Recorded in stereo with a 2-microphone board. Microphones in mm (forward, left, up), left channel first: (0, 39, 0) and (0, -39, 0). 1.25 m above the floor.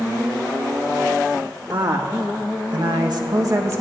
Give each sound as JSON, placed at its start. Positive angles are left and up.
{"t": 1.7, "sound": "a woman speaking", "side_deg": -70, "distance_m": 2.5}